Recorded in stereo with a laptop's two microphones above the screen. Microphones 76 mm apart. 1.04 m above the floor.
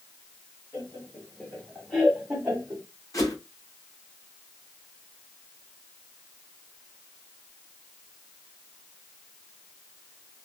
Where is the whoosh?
45° left (ahead or behind), 1.4 m.